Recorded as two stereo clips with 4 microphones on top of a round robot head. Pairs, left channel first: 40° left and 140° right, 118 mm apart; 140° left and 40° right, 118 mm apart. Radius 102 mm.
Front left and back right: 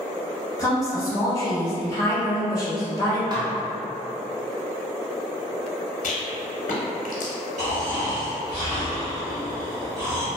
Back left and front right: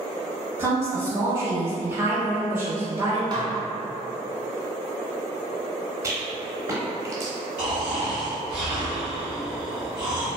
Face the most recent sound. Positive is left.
turn(degrees=-120)